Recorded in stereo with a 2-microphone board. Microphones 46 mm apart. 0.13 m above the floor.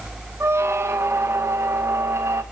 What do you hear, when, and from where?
0.4 s a squeak: 75° right (ahead or behind), 1.0 m